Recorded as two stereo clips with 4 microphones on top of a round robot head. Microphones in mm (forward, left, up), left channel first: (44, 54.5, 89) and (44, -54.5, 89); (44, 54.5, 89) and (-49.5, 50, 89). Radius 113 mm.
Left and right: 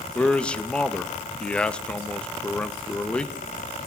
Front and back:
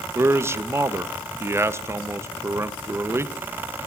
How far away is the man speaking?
About 0.5 m.